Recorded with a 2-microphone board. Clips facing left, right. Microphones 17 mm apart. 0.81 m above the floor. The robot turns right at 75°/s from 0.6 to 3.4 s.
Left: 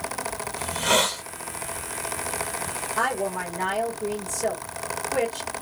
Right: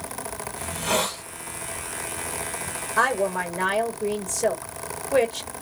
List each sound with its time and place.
0.6 s a hiss: 35° left, 1.6 m; by 1.2 s 80° left, 1.6 m
3.0 s a woman speaking: 130° right, 1.6 m; by 5.5 s 100° right, 1.6 m